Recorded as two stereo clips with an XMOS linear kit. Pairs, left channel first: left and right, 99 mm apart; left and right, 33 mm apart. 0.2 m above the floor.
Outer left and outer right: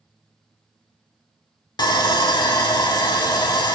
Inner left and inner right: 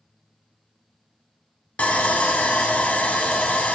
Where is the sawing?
45° left (ahead or behind), 0.6 m.